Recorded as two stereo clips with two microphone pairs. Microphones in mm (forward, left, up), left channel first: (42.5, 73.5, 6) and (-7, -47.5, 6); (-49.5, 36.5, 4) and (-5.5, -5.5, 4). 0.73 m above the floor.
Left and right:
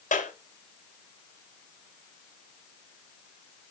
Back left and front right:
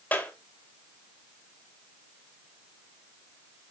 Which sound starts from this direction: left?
A clap, at 0.1 s.